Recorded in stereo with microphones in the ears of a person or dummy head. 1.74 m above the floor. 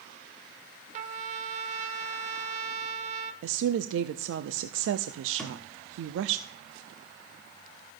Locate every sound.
0.9 s a trumpet: 45° right (ahead or behind), 1.1 m
3.4 s a woman speaking: 80° right, 0.7 m
5.4 s a thud: 5° left (ahead or behind), 2.5 m